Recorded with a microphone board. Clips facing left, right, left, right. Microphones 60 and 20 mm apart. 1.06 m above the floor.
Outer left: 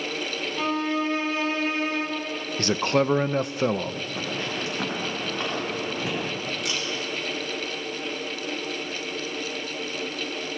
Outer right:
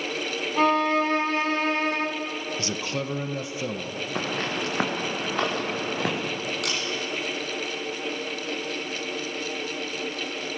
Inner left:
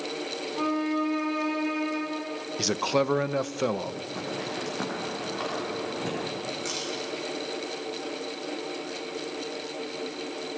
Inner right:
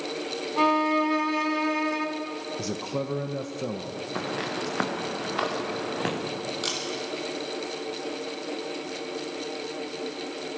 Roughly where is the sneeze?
No sneeze in this recording.